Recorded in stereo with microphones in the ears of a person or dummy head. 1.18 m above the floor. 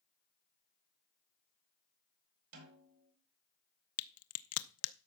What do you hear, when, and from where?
2.5 s a snare drum: 70° right (ahead or behind), 4.5 m
4.0 s a crack: 70° left (ahead or behind), 0.7 m